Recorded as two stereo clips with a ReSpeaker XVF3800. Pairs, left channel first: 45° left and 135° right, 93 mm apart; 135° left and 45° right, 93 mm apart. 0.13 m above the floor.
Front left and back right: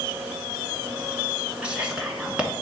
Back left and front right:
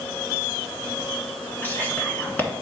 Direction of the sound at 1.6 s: 170° left.